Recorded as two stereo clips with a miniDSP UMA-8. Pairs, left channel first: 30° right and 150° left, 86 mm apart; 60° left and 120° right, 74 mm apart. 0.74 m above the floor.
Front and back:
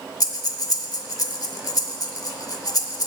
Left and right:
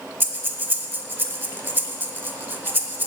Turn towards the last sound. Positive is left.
turn(degrees=-60)